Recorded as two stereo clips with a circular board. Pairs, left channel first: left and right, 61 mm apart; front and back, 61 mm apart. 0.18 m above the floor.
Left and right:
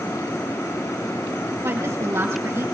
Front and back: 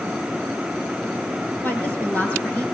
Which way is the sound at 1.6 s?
55° right.